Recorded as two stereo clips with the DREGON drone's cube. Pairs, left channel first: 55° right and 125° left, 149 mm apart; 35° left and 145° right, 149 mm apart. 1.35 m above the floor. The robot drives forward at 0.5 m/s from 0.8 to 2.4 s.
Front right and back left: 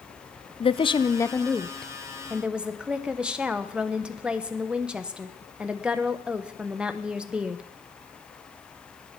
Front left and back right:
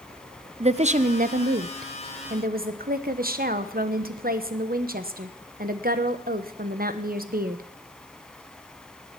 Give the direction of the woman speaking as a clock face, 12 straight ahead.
4 o'clock.